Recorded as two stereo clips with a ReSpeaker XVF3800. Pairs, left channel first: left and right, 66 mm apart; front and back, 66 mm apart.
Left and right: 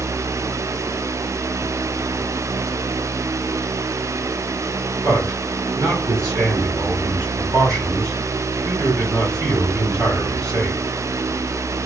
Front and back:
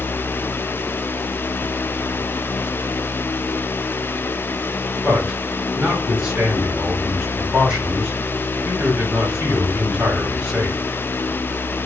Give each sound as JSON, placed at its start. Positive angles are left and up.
{"t": 5.0, "sound": "a man speaking", "azimuth_deg": -110, "distance_m": 3.0}